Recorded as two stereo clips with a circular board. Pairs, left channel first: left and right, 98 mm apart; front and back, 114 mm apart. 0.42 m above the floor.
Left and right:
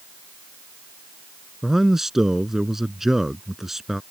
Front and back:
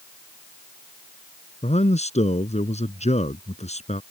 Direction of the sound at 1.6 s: 5° right.